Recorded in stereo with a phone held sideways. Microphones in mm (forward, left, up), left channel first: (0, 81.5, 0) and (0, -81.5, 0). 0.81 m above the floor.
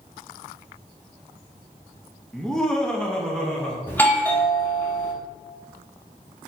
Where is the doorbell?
10° left (ahead or behind), 0.8 m.